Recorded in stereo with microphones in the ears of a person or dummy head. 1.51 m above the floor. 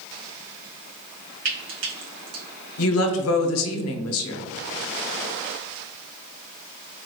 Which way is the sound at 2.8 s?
80° left.